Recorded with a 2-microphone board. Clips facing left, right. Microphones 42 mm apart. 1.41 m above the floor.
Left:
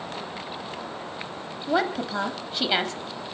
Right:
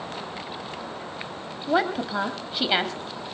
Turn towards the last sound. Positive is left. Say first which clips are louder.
# right 1 dB
turn(degrees=-5)  # may be behind; listen again after turning